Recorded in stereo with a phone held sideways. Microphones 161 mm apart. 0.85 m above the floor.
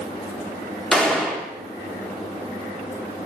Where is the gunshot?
5° left (ahead or behind), 1.5 m.